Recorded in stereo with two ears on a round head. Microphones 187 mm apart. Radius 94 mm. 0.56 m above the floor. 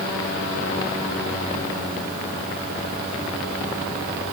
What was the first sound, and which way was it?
Only background noise.